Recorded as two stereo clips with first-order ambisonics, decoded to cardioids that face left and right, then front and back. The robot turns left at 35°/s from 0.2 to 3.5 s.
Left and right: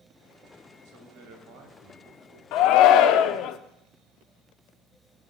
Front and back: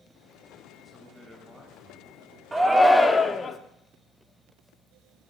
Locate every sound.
0.8 s a man speaking: 75° right, 1.9 m; by 2.4 s 130° right, 1.9 m
2.5 s a shout: 100° left, 0.5 m; by 3.6 s 65° left, 0.5 m